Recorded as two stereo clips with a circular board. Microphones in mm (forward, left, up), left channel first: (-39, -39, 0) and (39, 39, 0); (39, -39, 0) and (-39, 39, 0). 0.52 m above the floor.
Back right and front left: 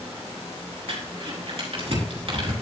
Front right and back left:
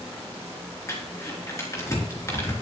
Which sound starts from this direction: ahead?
Crumpling, at 0.9 s.